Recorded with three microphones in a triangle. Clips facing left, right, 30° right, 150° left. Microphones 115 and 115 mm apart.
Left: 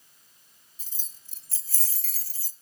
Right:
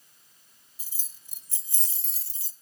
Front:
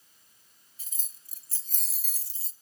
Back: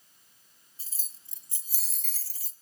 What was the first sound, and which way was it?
Keys jangling, 165° right.